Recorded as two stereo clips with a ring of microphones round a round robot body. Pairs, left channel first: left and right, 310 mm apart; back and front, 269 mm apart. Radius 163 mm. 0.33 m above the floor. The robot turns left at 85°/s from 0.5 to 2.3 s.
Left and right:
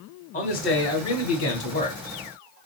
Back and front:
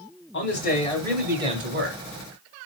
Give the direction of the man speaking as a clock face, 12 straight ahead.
7 o'clock.